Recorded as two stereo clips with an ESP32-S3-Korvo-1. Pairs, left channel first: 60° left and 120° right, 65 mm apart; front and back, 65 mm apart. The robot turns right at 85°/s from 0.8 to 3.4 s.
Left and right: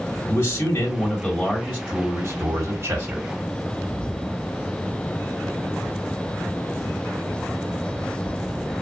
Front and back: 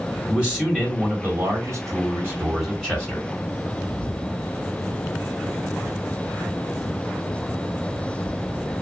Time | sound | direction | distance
0.3 | a man speaking | 105° left | 1.7 m